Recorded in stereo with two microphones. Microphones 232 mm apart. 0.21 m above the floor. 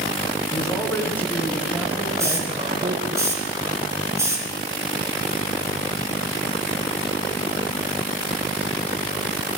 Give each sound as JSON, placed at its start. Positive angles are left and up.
{"t": 0.5, "sound": "a man speaking", "side_deg": 20, "distance_m": 2.5}
{"t": 2.2, "sound": "a hiss", "side_deg": -10, "distance_m": 3.0}